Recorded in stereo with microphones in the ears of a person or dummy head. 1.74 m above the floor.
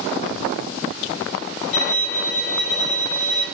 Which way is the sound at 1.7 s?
35° left (ahead or behind).